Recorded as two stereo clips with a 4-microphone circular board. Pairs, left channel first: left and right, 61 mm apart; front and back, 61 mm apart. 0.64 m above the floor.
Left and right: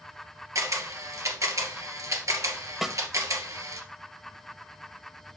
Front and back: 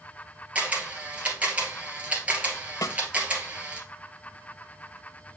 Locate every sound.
0.6 s a camera shutter: 115° right, 1.9 m
2.8 s a snare drum: 5° right, 0.7 m